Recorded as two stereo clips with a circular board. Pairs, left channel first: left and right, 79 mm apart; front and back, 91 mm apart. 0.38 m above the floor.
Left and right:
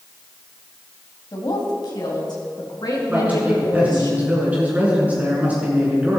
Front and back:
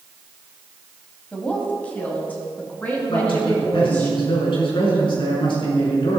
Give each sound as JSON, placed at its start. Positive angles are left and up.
{"t": 1.3, "sound": "a woman speaking", "azimuth_deg": 75, "distance_m": 2.0}
{"t": 3.1, "sound": "a man speaking", "azimuth_deg": -20, "distance_m": 5.5}